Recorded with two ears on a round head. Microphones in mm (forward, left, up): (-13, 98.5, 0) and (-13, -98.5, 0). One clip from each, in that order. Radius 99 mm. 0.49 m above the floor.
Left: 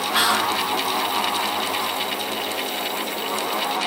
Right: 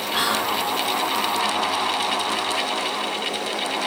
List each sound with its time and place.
0.1 s whispering: 20° left (ahead or behind), 1.6 m